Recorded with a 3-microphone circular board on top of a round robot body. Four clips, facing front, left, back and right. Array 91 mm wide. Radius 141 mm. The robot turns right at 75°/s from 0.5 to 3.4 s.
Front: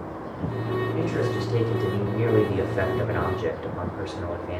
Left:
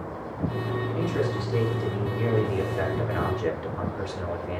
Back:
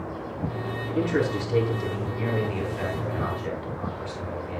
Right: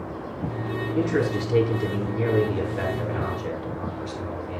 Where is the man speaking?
135° right, 8 m; by 4.6 s 45° left, 8 m.